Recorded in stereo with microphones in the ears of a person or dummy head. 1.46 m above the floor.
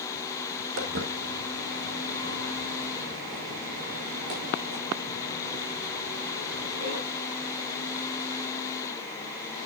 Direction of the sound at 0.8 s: 70° right (ahead or behind).